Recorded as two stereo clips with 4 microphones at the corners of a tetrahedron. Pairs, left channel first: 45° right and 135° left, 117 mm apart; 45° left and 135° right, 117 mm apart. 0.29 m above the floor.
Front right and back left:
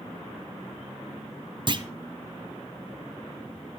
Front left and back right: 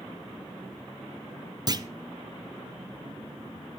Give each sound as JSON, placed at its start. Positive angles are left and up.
{"t": 1.7, "sound": "a clunk", "azimuth_deg": 175, "distance_m": 0.7}